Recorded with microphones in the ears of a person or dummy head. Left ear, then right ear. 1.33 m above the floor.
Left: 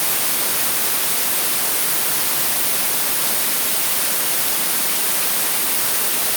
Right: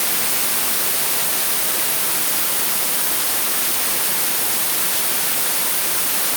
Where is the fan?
I don't hear a fan.